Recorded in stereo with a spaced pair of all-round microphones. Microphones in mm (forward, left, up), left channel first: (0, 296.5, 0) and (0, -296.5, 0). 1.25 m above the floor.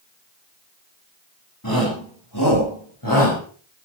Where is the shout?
35° left (ahead or behind), 9 m.